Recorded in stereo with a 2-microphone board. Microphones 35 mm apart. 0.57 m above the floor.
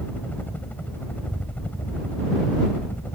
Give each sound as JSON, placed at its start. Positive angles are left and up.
{"t": 0.0, "sound": "a helicopter", "side_deg": 55}